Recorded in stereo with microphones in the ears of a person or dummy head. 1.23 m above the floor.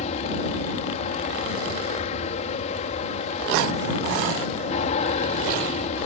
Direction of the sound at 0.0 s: 40° left (ahead or behind).